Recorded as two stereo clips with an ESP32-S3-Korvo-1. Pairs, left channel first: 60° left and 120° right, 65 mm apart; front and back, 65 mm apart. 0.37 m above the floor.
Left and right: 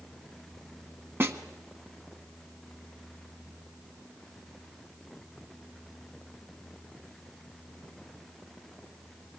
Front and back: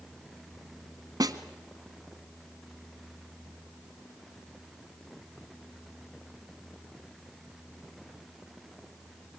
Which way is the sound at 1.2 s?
170° right.